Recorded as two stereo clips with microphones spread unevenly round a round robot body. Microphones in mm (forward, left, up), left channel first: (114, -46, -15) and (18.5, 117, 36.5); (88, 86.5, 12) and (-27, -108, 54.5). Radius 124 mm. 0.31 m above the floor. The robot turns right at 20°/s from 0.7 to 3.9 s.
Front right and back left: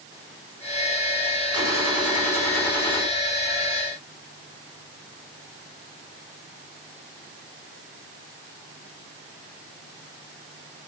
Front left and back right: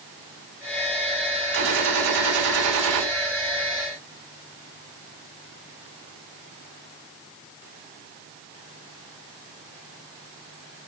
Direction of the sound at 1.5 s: 160° right.